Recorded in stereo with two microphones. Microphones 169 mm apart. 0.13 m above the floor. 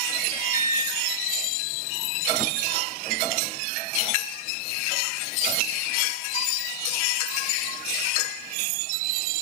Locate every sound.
0.3 s an alarm: 55° left (ahead or behind), 3.5 m